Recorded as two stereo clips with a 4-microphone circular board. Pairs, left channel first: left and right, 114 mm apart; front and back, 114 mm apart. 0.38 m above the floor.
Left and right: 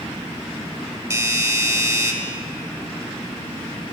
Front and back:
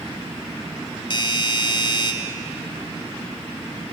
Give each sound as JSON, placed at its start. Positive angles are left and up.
{"t": 1.1, "sound": "a doorbell", "azimuth_deg": -30, "distance_m": 2.0}